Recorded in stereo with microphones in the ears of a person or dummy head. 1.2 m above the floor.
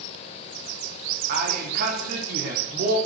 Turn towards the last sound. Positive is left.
turn(degrees=-50)  # may be behind; listen again after turning